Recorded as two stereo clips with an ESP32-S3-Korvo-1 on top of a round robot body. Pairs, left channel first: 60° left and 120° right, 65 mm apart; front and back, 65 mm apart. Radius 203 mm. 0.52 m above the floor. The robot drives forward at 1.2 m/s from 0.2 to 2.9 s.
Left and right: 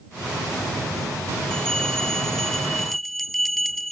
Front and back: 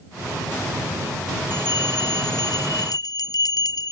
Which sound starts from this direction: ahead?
A bell, at 1.5 s.